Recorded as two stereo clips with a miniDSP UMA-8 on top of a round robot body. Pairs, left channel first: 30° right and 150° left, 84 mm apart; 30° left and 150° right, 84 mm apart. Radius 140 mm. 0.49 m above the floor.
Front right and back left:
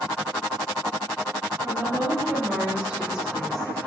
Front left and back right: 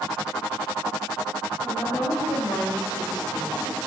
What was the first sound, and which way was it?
A woman speaking, 90° left.